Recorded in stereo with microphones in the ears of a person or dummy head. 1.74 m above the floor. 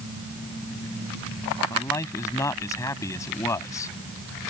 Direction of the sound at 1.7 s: 15° left (ahead or behind).